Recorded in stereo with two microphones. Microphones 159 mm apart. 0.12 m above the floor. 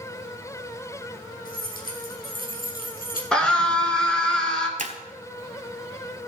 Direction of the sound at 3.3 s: 5° left (ahead or behind).